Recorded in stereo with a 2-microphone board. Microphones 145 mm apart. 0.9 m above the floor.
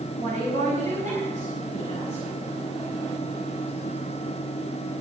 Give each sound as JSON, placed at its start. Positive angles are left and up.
{"t": 0.2, "sound": "a woman speaking", "side_deg": -65, "distance_m": 4.5}